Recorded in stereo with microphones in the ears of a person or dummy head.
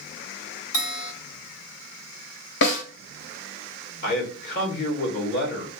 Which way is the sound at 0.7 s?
65° left (ahead or behind).